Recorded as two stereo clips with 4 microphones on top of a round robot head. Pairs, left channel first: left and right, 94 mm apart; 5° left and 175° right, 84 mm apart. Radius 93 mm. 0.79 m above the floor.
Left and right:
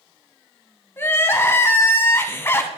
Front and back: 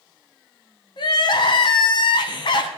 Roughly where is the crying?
Ahead left.